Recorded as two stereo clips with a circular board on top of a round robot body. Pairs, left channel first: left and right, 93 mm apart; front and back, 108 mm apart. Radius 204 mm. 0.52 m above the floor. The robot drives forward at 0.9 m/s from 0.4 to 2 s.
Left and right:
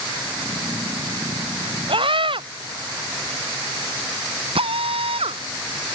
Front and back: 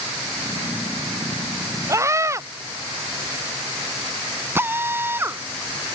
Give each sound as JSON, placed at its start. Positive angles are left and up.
{"t": 1.9, "sound": "a scream", "azimuth_deg": -115}
{"t": 4.5, "sound": "a drill", "azimuth_deg": -110}